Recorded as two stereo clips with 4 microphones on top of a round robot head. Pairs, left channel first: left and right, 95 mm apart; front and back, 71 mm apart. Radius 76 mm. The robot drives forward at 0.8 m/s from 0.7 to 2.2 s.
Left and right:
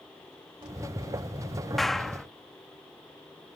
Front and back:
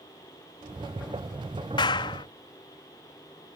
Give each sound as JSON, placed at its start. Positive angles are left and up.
{"t": 1.8, "sound": "a clap", "azimuth_deg": 0}